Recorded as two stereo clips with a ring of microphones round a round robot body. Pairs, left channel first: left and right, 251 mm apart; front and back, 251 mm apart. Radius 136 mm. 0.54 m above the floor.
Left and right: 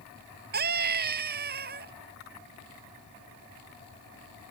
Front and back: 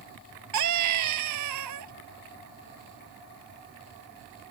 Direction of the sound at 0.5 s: 150° right.